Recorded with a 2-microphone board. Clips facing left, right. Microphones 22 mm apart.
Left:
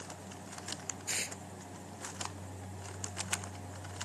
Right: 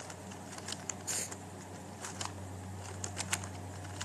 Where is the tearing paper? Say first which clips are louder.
Left 4 dB; 60° left (ahead or behind).